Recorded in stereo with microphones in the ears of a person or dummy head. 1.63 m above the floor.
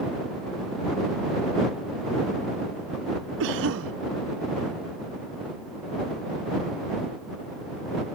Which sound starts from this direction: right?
A cough, at 3.4 s.